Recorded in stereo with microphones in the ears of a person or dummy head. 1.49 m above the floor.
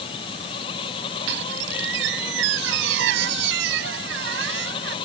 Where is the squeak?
70° right (ahead or behind).